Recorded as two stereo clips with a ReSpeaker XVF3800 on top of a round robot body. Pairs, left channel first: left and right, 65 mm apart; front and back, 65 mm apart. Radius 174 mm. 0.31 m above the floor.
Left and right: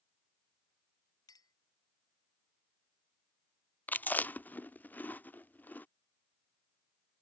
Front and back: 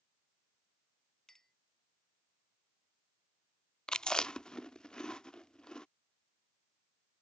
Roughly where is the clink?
Left.